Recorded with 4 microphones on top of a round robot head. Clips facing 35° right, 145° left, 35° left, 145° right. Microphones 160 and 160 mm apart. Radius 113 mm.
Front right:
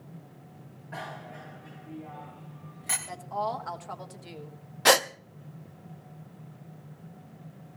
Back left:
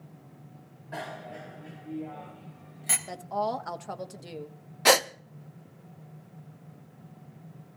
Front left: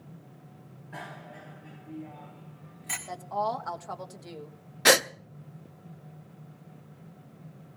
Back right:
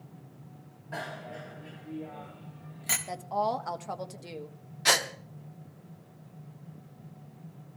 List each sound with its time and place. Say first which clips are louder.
0.9 s a bicycle bell: back left 2 dB, back right 5 dB; 155° right, 3 m
3.1 s a woman speaking: back left 2 dB, back right 1 dB; 150° left, 1.4 m
4.8 s a gasp: even, front left 7 dB; 60° left, 0.6 m